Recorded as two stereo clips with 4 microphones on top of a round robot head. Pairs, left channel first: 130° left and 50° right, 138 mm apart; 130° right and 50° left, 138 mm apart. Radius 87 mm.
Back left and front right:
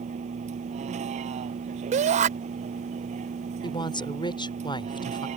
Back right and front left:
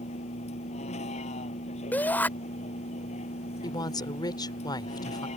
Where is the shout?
55° right.